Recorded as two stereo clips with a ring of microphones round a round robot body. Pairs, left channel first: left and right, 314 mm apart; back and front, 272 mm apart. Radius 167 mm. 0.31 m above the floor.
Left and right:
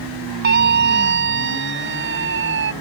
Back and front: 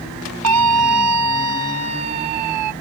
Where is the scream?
30° right; by 2.7 s 35° right.